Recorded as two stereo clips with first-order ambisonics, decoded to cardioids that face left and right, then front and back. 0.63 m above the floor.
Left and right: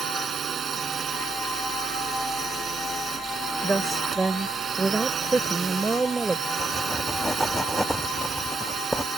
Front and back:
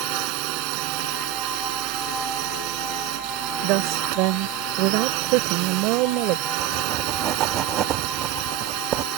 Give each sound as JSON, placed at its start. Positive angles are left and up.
{"t": 0.0, "sound": "a drone", "azimuth_deg": -160}
{"t": 3.6, "sound": "a woman speaking", "azimuth_deg": -165}
{"t": 6.6, "sound": "writing", "azimuth_deg": -175}